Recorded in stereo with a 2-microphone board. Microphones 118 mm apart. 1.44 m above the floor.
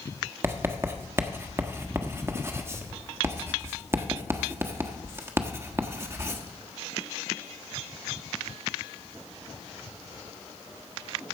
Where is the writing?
20° right (ahead or behind), 1.2 m.